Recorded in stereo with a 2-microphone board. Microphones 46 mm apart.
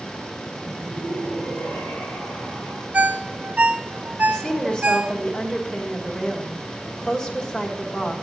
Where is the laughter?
65° left (ahead or behind), 5.5 m.